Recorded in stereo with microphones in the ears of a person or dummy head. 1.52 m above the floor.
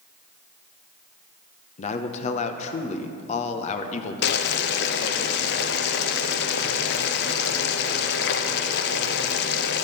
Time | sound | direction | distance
1.8 | a man speaking | 45° left (ahead or behind) | 0.8 m
4.2 | boiling | 65° left (ahead or behind) | 0.8 m